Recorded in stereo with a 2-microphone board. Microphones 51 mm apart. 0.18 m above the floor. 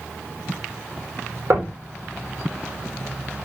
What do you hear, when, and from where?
1.5 s knocking: 50° right (ahead or behind), 4.5 m